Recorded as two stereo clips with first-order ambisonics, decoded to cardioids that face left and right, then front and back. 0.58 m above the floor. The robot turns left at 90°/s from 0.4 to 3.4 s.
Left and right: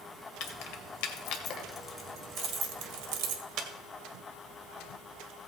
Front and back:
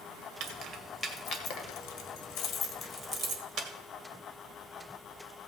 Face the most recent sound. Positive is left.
turn(degrees=-130)